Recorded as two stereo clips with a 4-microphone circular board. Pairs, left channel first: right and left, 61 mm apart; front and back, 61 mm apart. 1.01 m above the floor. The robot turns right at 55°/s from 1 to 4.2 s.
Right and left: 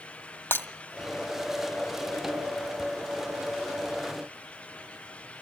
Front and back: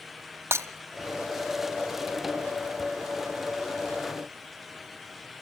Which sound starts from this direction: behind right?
Breaking glass, at 0.5 s.